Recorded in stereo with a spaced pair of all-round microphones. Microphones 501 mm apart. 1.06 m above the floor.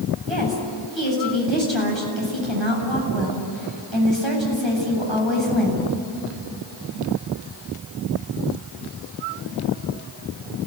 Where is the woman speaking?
60° right (ahead or behind), 8 m.